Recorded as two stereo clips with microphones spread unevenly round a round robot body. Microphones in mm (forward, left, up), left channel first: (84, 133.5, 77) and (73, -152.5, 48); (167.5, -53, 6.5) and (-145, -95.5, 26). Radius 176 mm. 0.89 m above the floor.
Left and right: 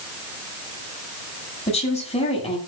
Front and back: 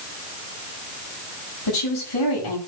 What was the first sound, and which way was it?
A woman speaking, 20° left.